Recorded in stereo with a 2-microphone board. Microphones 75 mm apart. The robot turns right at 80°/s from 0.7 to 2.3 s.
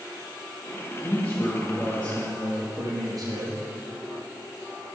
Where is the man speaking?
125° left, 4 m; by 3.7 s 135° right, 4 m.